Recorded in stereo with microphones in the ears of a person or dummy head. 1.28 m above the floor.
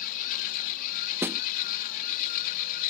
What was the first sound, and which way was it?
A machine running, 50° left (ahead or behind).